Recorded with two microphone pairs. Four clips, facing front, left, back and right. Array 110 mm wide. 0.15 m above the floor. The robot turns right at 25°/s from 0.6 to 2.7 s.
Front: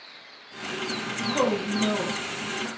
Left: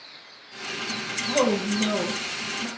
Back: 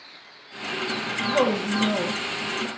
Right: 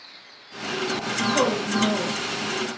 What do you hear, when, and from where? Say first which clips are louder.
1.3 s a woman speaking: left 1 dB, back 2 dB; 140° left, 5 m; by 2.7 s 175° left, 5 m